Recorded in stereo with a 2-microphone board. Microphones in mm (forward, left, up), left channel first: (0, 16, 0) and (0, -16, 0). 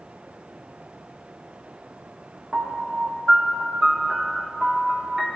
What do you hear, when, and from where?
2.5 s a piano: 15° right (ahead or behind), 1.2 m